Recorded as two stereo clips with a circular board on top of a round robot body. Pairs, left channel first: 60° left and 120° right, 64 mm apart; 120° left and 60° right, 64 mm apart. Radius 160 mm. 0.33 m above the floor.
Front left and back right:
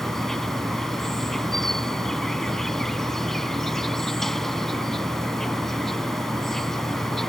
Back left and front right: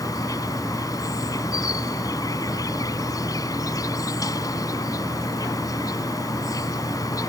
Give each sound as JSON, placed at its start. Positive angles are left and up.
{"t": 0.0, "sound": "an insect", "azimuth_deg": 145}